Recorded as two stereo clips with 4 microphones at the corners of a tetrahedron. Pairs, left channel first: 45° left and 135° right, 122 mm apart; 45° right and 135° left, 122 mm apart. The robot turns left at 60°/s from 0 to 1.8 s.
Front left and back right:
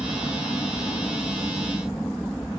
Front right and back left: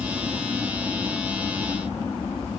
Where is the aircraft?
95° left; by 2.6 s 15° right.